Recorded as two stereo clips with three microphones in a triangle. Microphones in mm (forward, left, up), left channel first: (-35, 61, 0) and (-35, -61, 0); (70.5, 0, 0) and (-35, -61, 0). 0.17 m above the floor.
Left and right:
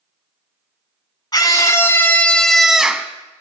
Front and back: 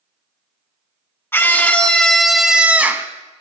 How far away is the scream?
About 1.2 m.